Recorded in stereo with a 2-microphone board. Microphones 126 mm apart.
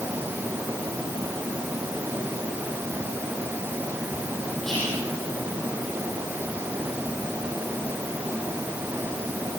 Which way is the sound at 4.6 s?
5° left (ahead or behind).